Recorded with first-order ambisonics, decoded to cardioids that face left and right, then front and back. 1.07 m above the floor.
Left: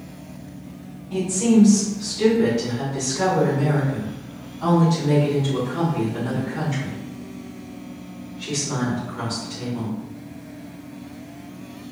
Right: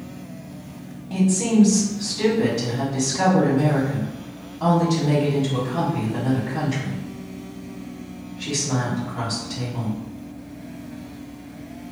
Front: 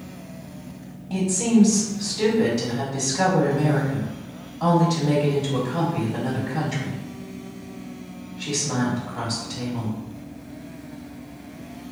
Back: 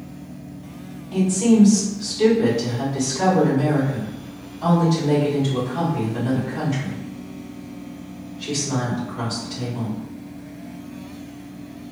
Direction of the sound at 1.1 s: 40° right.